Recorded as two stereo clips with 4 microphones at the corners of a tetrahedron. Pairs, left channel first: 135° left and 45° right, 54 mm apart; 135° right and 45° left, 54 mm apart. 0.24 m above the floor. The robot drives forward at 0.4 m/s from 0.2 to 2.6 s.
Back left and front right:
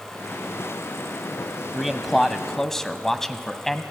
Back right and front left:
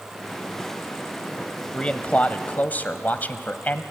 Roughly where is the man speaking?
Behind right.